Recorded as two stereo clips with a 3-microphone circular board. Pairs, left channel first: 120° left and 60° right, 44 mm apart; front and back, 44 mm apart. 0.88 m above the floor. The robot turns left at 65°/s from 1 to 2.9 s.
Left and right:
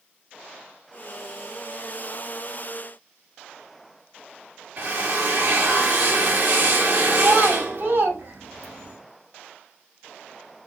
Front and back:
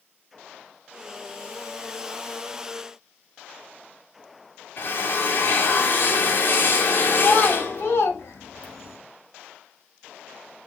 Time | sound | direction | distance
4.8 | a drill | 30° right | 2.0 m
7.2 | a child speaking | 30° right | 4 m